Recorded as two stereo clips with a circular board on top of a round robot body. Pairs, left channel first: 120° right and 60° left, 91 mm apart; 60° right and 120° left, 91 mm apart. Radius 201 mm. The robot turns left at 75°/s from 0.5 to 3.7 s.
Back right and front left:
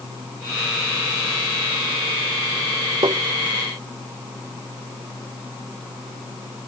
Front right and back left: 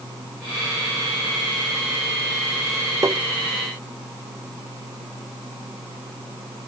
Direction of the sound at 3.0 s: 70° left.